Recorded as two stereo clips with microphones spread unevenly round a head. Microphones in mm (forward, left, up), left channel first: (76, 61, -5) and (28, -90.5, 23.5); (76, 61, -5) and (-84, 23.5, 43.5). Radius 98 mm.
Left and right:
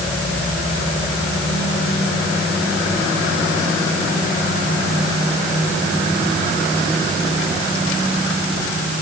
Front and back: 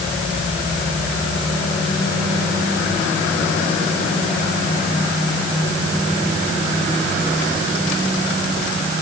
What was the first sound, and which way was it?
Only background noise.